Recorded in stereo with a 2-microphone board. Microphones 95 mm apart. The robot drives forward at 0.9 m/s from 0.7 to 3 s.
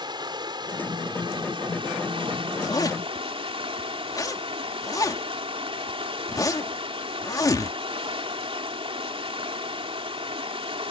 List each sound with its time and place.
0.0 s running water: 55° right (ahead or behind); by 10.9 s 85° right
2.5 s a zipper: 45° left (ahead or behind); by 7.8 s 40° left (ahead or behind)